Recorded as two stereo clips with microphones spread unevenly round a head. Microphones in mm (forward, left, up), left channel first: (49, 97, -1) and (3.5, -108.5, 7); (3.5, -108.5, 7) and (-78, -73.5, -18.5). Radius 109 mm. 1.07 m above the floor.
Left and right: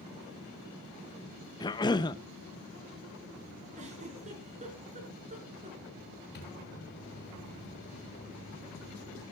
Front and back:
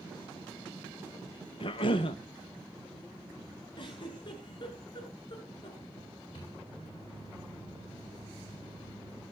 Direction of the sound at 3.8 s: 45° right.